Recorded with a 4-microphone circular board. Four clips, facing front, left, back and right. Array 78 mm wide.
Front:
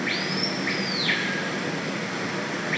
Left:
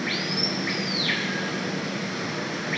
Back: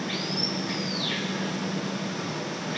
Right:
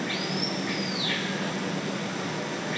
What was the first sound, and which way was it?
Running water, 25° left.